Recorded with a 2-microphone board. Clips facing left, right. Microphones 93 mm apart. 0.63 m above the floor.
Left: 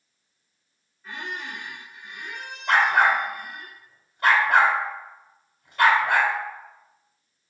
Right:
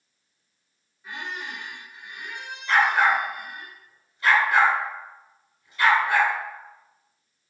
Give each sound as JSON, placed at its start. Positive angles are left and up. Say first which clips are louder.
{"t": 1.0, "sound": "a squeak", "louder": "even", "side_deg": -10, "distance_m": 1.0}
{"t": 2.7, "sound": "a dog barking", "louder": "left 1 dB", "side_deg": 60, "distance_m": 0.9}